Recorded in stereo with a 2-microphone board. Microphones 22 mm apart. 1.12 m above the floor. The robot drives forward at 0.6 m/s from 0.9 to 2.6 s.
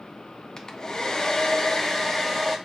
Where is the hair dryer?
35° left (ahead or behind), 0.5 m; by 2.6 s 15° left (ahead or behind), 1.0 m.